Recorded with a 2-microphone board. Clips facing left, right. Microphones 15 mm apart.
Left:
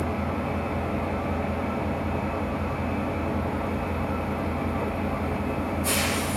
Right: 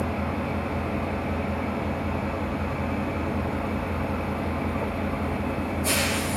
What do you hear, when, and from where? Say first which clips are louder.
0.0 s an engine running: even; 5° right (ahead or behind), 4 m